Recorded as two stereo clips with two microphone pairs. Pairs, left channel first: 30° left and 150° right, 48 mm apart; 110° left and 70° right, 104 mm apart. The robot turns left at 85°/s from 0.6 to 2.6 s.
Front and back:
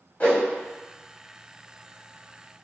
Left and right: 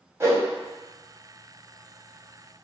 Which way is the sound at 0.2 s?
20° right.